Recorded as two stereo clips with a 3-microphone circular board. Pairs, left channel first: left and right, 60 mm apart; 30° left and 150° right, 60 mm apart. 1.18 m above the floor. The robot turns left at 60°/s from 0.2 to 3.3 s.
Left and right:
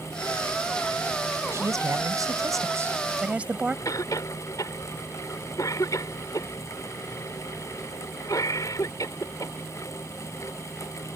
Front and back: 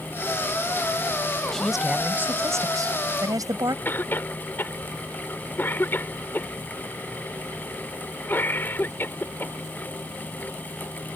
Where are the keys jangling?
No keys jangling in this recording.